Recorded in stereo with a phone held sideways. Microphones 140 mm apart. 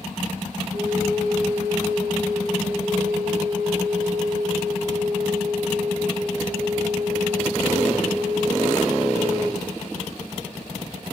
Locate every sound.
0.7 s a flute: 80° right, 6 m